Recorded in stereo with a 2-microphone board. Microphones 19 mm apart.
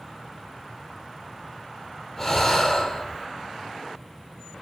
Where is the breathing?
10° left (ahead or behind), 3.5 m.